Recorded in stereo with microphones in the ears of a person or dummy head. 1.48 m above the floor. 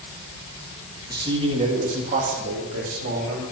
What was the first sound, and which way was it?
A man speaking, 20° right (ahead or behind).